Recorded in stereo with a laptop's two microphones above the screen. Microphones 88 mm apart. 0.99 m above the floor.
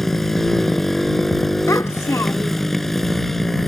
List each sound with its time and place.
0.0 s a motorcycle: 5° left (ahead or behind)
1.7 s a child speaking: 30° left (ahead or behind)